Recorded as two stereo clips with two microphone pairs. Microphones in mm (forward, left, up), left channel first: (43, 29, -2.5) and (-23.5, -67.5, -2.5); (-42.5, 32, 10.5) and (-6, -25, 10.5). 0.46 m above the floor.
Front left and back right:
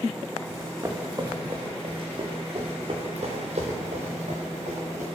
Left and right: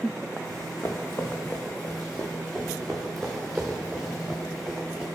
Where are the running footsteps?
165° left, 1.8 m; by 5.0 s 135° right, 3 m.